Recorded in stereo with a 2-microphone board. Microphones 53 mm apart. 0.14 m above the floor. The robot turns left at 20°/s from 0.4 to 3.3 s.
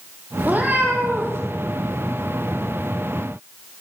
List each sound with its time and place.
0.4 s a cat meowing: 30° right (ahead or behind), 3.5 m; by 1.4 s 50° right (ahead or behind), 3.5 m